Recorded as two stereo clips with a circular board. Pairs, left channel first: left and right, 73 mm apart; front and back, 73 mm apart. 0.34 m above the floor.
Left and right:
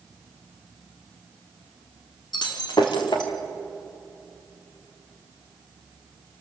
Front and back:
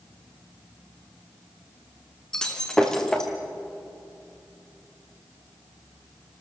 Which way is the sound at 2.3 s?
80° left.